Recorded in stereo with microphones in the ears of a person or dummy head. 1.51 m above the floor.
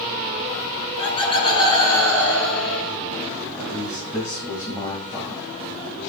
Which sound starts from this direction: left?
Laughter, at 0.8 s.